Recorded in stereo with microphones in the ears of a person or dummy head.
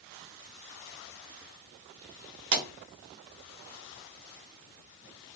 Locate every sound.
2.5 s a pop: 70° right (ahead or behind), 1.0 m